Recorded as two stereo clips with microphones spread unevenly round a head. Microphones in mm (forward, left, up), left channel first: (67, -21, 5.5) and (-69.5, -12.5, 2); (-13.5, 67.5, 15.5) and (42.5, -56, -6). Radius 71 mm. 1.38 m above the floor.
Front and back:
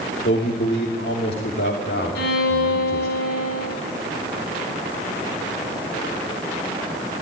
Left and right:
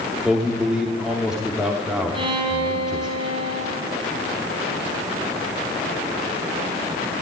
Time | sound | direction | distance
0.2 | a man speaking | 20° left | 3 m
2.1 | a violin | 10° right | 6.5 m